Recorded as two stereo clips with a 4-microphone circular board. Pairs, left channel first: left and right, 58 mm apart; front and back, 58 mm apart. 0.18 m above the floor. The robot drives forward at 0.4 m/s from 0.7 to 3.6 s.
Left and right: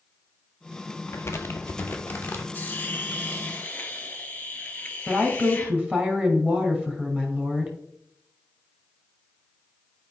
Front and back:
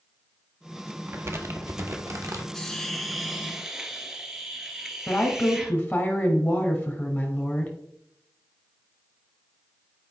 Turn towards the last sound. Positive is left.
turn(degrees=-45)